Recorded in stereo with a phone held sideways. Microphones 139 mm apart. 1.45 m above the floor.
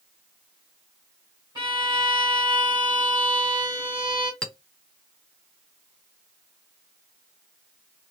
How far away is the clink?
About 0.7 m.